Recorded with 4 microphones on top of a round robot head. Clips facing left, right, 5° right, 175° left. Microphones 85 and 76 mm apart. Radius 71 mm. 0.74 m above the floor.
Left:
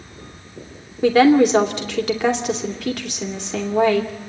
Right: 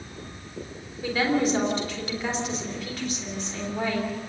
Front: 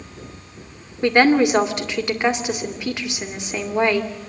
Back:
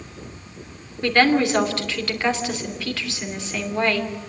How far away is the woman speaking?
About 3 m.